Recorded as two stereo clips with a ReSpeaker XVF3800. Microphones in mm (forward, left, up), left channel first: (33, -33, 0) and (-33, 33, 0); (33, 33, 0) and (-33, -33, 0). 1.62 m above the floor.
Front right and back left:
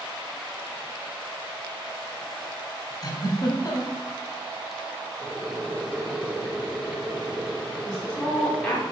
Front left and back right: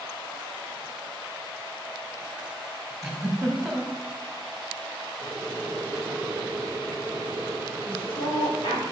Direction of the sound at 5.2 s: 165° right.